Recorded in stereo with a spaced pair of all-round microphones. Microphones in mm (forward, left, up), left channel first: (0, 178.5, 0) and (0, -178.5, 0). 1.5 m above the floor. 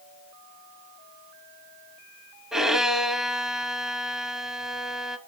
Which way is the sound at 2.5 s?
Centre (ahead or behind).